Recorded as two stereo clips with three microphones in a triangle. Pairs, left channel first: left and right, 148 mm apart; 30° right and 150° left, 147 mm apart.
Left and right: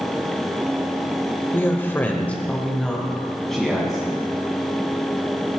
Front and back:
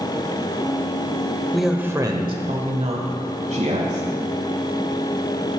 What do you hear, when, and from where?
1.5 s a man speaking: 50° left, 1.3 m; by 4.1 s straight behind, 3.5 m